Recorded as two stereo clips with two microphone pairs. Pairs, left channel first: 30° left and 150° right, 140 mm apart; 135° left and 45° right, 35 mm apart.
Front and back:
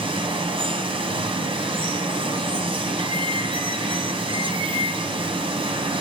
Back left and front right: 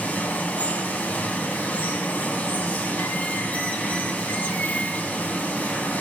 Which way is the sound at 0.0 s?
165° left.